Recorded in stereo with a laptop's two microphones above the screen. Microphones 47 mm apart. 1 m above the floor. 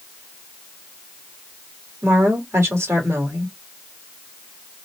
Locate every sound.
2.0 s a woman speaking: 75° right (ahead or behind), 2 m